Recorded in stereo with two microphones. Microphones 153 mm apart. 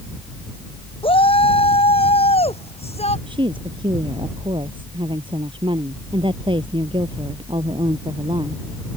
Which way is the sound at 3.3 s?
35° right (ahead or behind).